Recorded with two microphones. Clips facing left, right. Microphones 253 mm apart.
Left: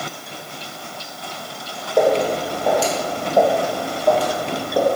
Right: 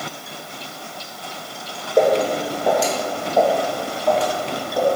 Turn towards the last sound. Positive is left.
turn(degrees=55)  # may be behind; listen again after turning